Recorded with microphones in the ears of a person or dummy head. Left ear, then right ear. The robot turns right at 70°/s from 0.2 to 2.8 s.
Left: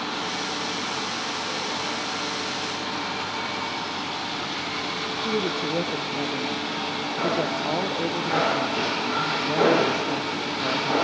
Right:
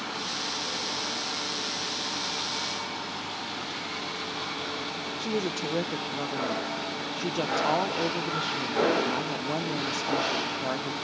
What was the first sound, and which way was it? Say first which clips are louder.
A woman speaking: left 4 dB; 35° right (ahead or behind).